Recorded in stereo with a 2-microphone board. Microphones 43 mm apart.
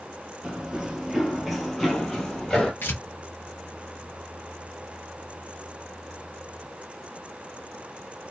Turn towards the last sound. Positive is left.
turn(degrees=60)  # may be behind; listen again after turning